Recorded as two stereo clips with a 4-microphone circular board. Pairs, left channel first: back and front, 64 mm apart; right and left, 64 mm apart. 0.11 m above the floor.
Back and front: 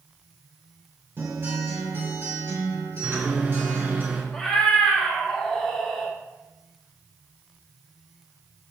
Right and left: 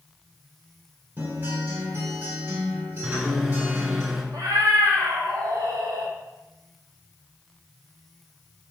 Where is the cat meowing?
95° left, 1.2 m.